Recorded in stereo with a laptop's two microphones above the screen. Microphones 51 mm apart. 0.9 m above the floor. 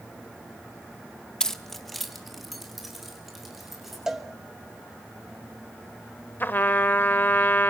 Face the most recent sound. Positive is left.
turn(degrees=45)  # may be behind; listen again after turning